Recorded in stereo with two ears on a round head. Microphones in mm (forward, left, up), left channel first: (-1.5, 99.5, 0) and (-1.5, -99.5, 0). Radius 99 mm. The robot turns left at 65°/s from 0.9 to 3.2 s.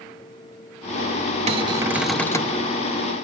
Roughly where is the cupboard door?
Behind right.